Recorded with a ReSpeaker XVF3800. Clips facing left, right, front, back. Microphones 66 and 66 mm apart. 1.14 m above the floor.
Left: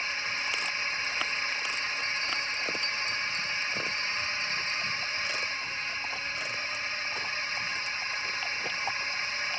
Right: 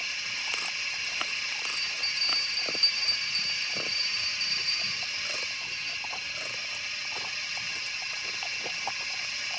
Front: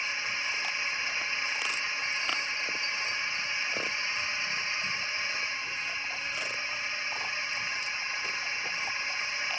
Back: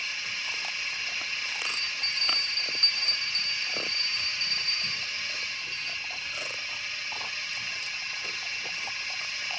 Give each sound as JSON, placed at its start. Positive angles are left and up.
{"t": 0.0, "sound": "a drone", "azimuth_deg": 50}
{"t": 1.7, "sound": "a bell", "azimuth_deg": 175}